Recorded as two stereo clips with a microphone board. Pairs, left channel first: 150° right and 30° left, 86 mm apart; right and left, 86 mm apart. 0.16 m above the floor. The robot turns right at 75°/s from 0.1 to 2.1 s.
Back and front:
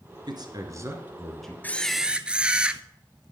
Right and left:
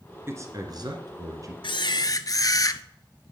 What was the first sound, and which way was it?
A man speaking, 35° left.